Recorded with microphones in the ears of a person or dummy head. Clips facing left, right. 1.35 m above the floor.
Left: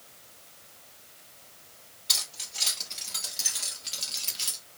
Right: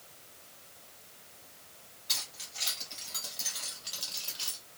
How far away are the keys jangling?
About 3 m.